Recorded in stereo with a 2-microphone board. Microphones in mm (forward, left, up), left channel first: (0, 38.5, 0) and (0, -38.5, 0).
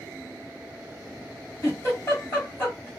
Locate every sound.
1.6 s a giggle: 30° left (ahead or behind), 2.5 m